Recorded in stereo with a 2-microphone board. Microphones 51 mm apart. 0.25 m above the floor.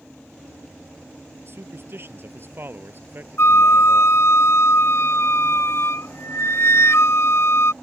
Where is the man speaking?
50° right (ahead or behind); by 4.2 s 40° right (ahead or behind).